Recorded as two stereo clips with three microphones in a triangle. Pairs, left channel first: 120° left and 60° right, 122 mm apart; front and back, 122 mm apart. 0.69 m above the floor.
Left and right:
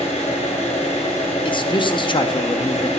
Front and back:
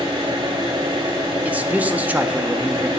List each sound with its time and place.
0.0 s an engine running: 135° left, 2.5 m
1.4 s a man speaking: 110° left, 0.6 m